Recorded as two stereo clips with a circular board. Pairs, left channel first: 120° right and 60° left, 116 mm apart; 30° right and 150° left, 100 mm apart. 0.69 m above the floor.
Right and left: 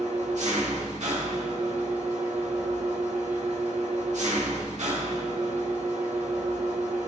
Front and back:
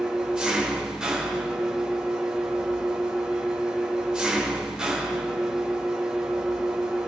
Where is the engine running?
70° left, 1.2 m.